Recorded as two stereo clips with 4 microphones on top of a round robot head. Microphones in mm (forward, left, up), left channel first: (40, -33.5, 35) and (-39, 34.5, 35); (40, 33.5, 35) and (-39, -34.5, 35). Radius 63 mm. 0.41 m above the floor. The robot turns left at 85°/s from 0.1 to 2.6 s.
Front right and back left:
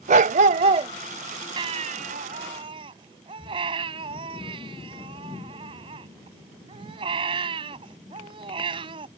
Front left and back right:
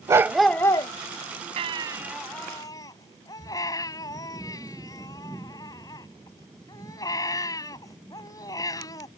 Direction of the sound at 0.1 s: 155° left.